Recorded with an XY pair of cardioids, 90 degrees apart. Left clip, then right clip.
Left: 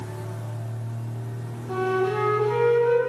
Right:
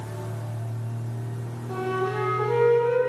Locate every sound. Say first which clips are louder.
1.7 s a flute: left 3 dB; 45° left, 3.5 m